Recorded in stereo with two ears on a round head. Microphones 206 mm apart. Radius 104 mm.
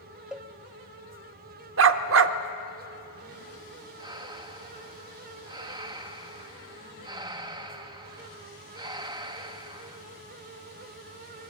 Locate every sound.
0.3 s a cowbell: 5° right (ahead or behind), 0.6 m
1.8 s a dog barking: 55° right (ahead or behind), 0.8 m
4.0 s breathing: 20° right (ahead or behind), 0.7 m